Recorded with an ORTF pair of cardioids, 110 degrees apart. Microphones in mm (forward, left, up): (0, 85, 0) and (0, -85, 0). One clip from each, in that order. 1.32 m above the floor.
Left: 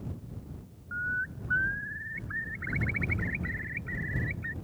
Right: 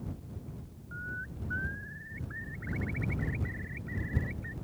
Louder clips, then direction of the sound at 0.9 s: Left 8 dB; 50° left.